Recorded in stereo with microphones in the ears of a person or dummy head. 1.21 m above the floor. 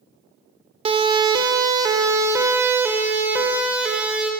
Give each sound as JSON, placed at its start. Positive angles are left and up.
{"t": 0.8, "sound": "a siren", "side_deg": -30, "distance_m": 3.5}